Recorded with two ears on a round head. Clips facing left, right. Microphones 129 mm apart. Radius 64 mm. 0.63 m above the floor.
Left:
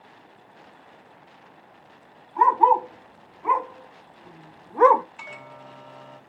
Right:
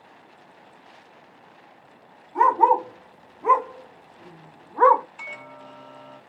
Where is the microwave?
Centre (ahead or behind), 0.6 m.